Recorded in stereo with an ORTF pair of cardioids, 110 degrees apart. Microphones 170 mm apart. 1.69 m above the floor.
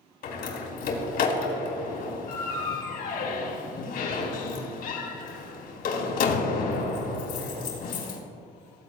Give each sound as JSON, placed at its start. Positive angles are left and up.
{"t": 0.2, "sound": "a door slam", "azimuth_deg": 65, "distance_m": 4.0}